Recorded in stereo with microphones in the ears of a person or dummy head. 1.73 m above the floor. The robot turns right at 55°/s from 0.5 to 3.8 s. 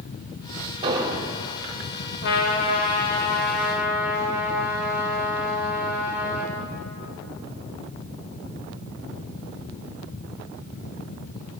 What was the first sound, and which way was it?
An explosion, 25° right (ahead or behind).